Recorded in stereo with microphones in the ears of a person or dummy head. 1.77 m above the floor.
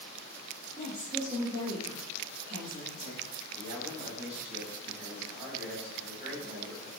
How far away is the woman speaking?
About 2 m.